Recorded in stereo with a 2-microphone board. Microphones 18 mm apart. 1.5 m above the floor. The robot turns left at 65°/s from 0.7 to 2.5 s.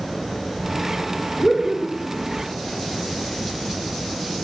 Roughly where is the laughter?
Left.